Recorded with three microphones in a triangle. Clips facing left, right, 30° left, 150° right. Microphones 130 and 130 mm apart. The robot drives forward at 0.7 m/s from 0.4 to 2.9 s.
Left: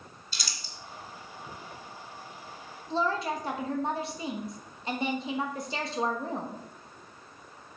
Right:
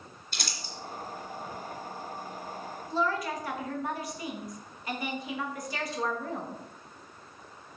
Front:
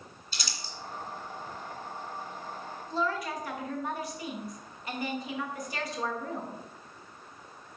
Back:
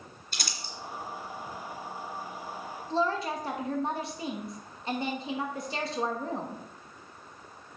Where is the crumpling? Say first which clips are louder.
Right 4 dB, back 2 dB; 115° right, 2 m; by 0.7 s 120° right, 2.5 m.